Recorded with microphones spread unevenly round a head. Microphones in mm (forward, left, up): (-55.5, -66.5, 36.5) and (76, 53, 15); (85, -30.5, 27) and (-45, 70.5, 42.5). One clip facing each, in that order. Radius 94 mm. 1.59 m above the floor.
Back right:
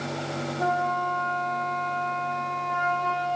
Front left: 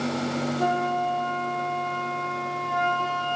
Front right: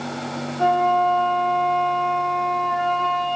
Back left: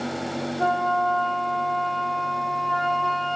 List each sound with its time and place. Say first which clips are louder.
0.6 s a flute: even, front right 6 dB; 10° left, 2.0 m